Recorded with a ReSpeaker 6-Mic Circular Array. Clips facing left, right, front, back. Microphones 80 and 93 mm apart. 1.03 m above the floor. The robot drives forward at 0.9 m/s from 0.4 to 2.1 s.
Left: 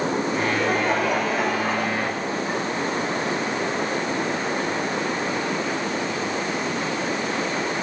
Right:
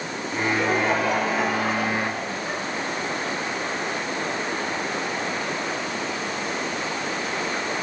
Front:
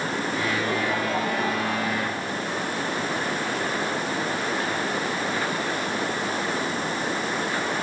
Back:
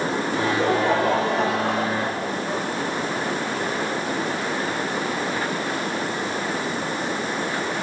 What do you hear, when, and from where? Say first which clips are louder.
0.3 s laughter: left 1 dB, back 7 dB; 175° left, 3 m; by 2.6 s straight behind, 4.5 m